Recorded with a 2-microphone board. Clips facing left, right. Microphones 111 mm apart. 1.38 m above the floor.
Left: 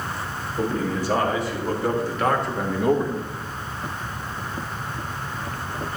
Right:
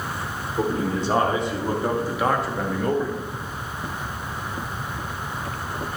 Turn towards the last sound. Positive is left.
turn(degrees=30)  # may be behind; listen again after turning